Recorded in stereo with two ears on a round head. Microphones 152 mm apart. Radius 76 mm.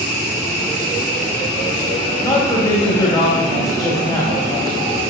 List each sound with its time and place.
2.2 s a man speaking: 25° left (ahead or behind), 3 m